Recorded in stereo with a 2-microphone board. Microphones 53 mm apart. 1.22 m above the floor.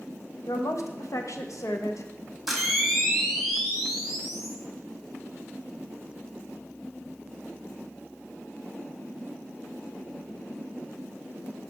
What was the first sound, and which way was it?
A woman speaking, 70° left (ahead or behind).